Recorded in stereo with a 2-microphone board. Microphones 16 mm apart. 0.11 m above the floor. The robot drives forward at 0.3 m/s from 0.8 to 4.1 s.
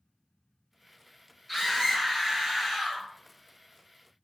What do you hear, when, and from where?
1.5 s a scream: 5° right (ahead or behind), 2 m